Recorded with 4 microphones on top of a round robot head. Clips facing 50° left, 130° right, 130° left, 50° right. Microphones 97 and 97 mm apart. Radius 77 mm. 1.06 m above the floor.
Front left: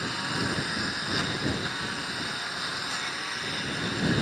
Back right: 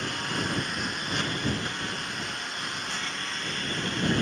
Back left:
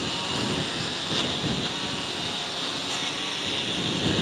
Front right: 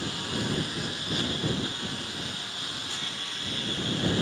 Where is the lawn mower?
135° left.